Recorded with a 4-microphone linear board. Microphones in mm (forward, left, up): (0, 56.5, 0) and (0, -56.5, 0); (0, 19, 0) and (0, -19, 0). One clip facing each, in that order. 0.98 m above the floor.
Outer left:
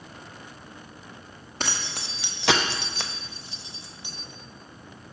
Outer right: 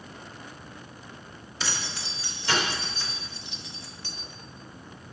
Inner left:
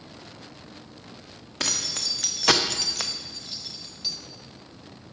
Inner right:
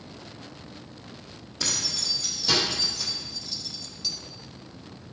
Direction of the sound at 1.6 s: 50° left (ahead or behind).